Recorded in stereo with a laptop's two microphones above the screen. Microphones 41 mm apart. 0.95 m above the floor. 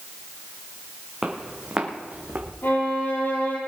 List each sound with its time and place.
1.2 s footsteps: 15° right (ahead or behind), 3 m; by 2.5 s 45° right (ahead or behind), 2.5 m
2.6 s a violin: 60° left (ahead or behind), 5.5 m